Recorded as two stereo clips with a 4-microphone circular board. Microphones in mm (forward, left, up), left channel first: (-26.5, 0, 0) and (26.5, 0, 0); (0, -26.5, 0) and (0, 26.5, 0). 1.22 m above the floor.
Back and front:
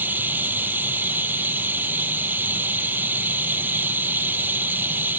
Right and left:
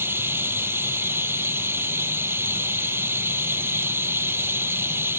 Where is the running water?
50° left.